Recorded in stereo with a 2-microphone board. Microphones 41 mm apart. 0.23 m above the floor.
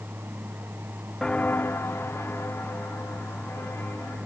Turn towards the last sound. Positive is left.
turn(degrees=70)  # may be behind; listen again after turning